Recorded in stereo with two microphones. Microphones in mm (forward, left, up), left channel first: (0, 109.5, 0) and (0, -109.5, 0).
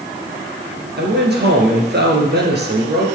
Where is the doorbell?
I don't hear a doorbell.